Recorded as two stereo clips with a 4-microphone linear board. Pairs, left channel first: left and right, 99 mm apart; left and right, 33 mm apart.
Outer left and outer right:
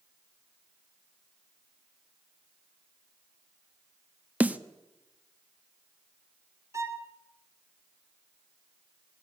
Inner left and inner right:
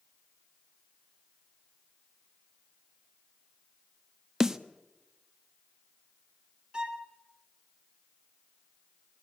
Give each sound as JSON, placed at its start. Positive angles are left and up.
{"t": 4.4, "sound": "a snare drum", "side_deg": -15, "distance_m": 0.9}
{"t": 6.7, "sound": "a violin", "side_deg": -30, "distance_m": 2.0}